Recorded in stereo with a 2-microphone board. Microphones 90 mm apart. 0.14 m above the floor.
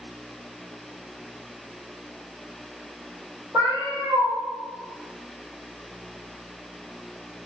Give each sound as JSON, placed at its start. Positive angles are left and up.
{"t": 3.5, "sound": "a cat meowing", "side_deg": -45, "distance_m": 1.4}